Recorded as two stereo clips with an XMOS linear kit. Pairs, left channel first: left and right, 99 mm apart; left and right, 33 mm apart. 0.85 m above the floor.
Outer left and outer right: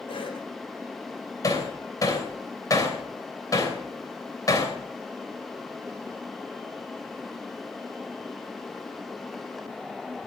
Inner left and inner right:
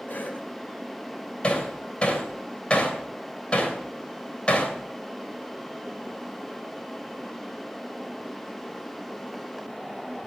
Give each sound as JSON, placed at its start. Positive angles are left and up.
{"t": 0.1, "sound": "a cough", "side_deg": 60, "distance_m": 3.0}
{"t": 1.4, "sound": "hammering", "side_deg": 35, "distance_m": 3.0}